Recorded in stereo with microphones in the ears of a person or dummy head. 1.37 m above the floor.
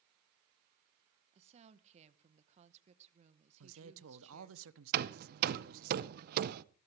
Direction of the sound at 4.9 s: 55° right (ahead or behind).